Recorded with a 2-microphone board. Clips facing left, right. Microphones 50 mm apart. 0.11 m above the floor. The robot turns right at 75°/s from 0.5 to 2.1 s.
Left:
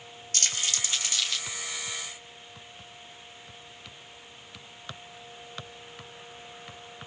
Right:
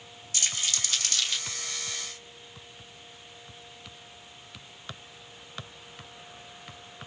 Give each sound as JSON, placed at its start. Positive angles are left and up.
{"t": 0.3, "sound": "crumpling", "side_deg": 55, "distance_m": 3.0}